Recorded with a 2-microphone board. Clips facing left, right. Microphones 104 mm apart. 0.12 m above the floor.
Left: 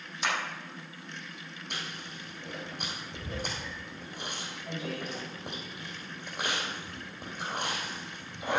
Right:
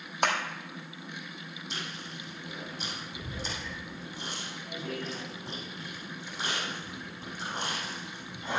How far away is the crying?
I don't hear crying.